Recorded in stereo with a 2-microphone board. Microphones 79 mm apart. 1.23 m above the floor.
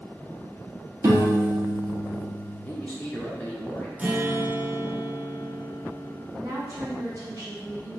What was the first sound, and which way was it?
A piano, 40° right (ahead or behind).